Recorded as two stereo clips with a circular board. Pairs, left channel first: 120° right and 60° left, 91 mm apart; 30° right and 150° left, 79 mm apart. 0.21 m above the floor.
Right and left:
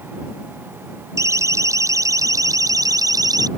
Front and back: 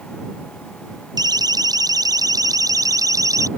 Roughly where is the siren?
Behind left.